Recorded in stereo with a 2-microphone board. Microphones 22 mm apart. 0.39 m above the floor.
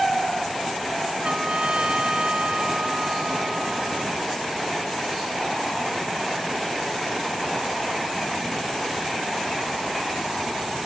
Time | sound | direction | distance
1.2 | a trumpet | 50° right (ahead or behind) | ?